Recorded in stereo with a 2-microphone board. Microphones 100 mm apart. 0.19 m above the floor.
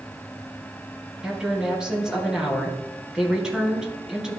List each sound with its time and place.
1.2 s a woman speaking: 5° right (ahead or behind), 2.5 m